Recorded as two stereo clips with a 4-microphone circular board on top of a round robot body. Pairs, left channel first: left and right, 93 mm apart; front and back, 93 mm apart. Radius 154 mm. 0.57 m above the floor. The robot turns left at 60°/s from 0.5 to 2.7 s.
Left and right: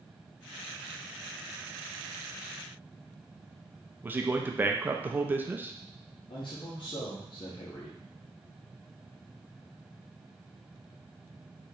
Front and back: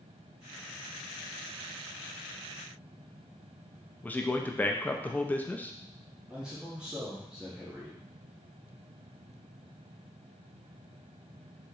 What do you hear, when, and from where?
4.0 s a man speaking: 50° right, 0.6 m
6.3 s a man speaking: 100° left, 1.0 m